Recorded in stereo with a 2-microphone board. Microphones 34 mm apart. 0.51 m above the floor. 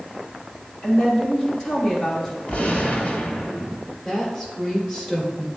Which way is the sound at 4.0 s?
25° left (ahead or behind).